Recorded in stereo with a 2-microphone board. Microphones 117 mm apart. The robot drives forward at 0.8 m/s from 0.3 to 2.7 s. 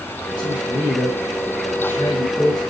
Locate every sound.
0.4 s a man speaking: 35° left (ahead or behind), 1.5 m; by 2.6 s 30° left (ahead or behind), 1.9 m